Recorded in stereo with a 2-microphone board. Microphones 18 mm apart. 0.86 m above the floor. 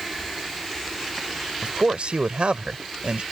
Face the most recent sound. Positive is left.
turn(degrees=-75)  # may be behind; listen again after turning